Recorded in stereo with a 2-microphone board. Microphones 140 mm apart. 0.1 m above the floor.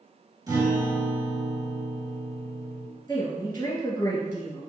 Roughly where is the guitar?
Right.